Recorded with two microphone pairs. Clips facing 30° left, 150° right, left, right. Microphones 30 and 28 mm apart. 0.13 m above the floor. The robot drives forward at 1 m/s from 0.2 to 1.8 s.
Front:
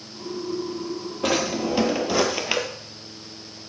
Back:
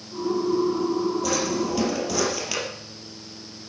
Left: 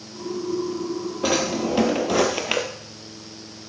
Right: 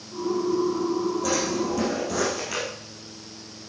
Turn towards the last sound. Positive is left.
turn(degrees=80)